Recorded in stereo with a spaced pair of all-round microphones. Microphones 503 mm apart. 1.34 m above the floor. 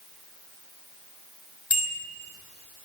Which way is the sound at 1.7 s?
30° left (ahead or behind).